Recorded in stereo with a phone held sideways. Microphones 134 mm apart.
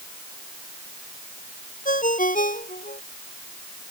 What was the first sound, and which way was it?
A ringtone, 90° left.